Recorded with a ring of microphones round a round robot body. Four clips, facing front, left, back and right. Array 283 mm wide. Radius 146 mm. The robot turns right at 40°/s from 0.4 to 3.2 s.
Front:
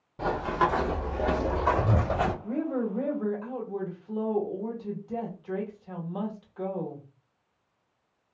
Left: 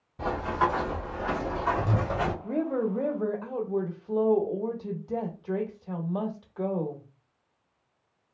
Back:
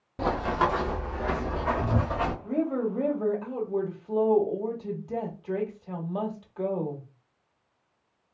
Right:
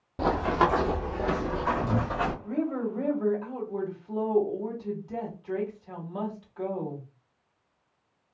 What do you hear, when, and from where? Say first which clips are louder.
0.2 s running footsteps: right 3 dB, back 1 dB; 115° right, 0.7 m; by 2.3 s 35° left, 1.2 m
2.4 s a woman speaking: left 2 dB, back 2 dB; 95° left, 1.1 m; by 7.0 s 125° left, 1.1 m